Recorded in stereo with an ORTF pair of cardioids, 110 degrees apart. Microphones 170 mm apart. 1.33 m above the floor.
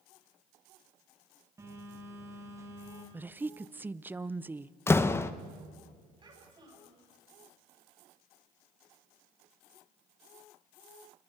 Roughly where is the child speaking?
Ahead right.